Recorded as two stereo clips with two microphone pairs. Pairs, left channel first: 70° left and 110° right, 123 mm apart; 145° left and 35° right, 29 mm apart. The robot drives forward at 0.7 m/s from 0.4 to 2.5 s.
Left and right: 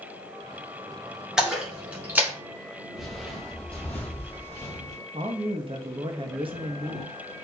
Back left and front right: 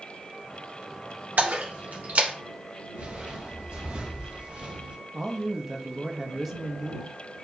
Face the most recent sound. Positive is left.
turn(degrees=-110)